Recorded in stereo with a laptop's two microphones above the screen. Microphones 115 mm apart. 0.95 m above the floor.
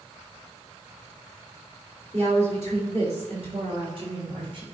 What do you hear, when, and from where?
2.1 s a woman speaking: 65° right (ahead or behind), 3 m; by 4.6 s 45° right (ahead or behind), 1.9 m